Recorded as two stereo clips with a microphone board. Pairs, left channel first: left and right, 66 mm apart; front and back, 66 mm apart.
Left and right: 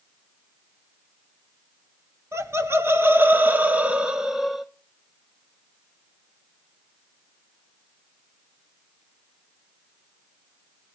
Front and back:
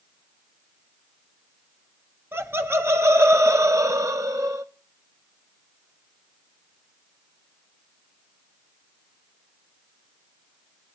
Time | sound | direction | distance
2.3 | laughter | 130° right | 2.5 m